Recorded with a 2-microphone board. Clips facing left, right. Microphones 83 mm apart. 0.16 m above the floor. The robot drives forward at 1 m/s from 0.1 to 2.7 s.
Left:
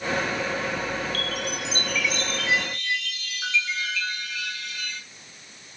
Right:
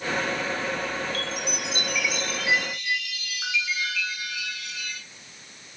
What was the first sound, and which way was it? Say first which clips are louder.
A chime: left 1 dB; 30° right (ahead or behind).